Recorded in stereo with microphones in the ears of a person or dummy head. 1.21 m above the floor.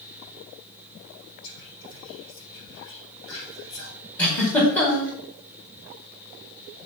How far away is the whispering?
About 4 m.